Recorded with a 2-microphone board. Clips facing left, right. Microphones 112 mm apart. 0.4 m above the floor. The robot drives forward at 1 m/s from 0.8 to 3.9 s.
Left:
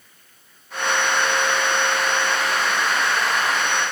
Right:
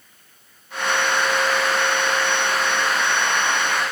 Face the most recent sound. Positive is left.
No sound to turn to.